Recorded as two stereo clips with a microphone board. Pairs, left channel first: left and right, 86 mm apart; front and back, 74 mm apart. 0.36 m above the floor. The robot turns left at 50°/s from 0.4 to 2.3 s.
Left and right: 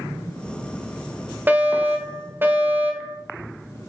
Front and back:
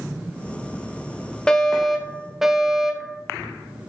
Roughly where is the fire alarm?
Ahead right.